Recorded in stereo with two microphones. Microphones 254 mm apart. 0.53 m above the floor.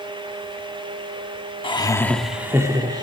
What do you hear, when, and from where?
1.6 s laughter: 20° left (ahead or behind), 1.0 m; by 3.0 s 20° right (ahead or behind), 1.4 m